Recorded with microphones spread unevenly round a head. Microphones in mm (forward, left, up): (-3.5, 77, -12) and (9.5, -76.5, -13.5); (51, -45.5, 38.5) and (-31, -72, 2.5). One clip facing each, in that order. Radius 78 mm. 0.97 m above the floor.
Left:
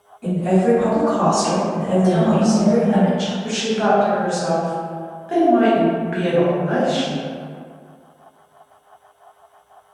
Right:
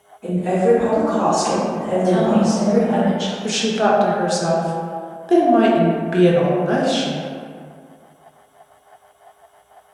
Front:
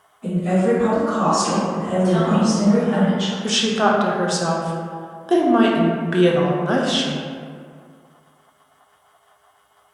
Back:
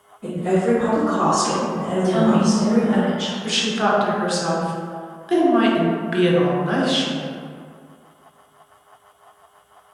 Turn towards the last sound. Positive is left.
turn(degrees=-50)